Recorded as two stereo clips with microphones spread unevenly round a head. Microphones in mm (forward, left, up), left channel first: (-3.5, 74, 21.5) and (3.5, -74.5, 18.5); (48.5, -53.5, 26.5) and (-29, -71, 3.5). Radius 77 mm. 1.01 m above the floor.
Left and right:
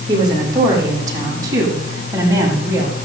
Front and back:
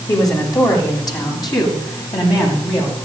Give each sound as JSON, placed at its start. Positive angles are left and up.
{"t": 0.1, "sound": "a woman speaking", "azimuth_deg": -25, "distance_m": 10.0}